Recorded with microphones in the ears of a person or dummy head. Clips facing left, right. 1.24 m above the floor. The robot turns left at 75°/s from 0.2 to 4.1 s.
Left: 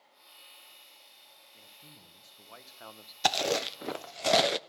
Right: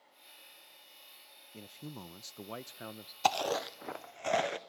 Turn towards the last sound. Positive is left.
turn(degrees=50)  # may be behind; listen again after turning